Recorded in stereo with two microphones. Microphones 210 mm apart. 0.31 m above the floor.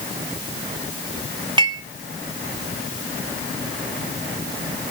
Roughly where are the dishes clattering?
Right.